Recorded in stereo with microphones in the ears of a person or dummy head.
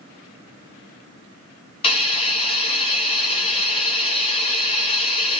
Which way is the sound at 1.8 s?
25° left (ahead or behind).